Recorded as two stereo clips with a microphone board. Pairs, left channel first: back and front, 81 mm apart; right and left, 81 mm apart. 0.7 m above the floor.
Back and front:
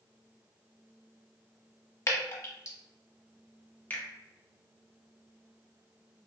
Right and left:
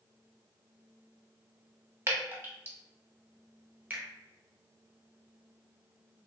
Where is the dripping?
140° left, 0.7 m.